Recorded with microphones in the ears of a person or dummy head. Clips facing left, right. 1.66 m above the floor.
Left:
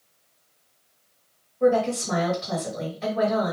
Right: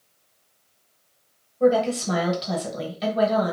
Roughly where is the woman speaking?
Right.